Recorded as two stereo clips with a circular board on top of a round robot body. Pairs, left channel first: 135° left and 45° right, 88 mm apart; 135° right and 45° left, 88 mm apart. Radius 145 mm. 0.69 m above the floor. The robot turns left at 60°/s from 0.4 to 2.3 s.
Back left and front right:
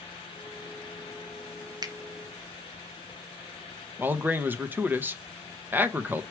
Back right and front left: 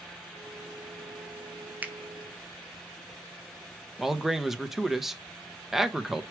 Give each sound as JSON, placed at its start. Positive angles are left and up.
{"t": 1.8, "sound": "a finger snap", "azimuth_deg": -25, "distance_m": 1.0}
{"t": 4.0, "sound": "a man speaking", "azimuth_deg": -35, "distance_m": 1.0}